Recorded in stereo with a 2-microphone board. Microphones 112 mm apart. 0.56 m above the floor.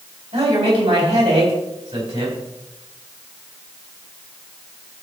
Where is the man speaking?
65° right (ahead or behind), 4.5 m.